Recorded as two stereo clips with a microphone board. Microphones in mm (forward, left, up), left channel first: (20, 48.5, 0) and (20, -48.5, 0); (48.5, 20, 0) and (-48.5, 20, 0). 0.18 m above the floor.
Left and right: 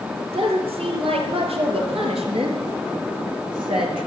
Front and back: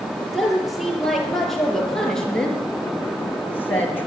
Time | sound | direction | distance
0.2 | a woman speaking | 90° right | 4.5 m